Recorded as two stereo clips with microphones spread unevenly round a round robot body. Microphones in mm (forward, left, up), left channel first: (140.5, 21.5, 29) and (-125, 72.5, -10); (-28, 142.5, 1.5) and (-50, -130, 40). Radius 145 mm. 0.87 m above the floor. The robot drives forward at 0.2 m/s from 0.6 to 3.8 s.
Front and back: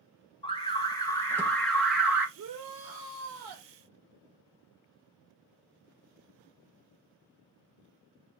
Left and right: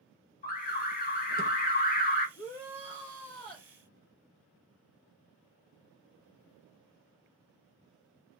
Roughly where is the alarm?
Ahead left.